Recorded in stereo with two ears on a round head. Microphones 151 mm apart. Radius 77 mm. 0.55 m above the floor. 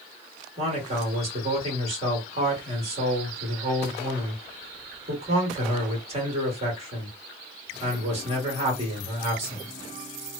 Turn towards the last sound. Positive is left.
turn(degrees=-35)  # may be behind; listen again after turning